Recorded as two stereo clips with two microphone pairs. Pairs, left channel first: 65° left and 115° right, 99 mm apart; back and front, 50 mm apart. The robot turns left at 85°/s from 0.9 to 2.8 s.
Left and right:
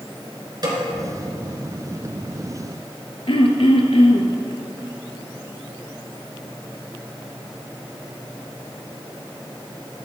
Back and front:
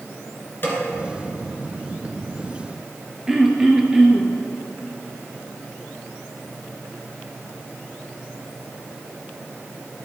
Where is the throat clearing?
80° left, 0.9 m.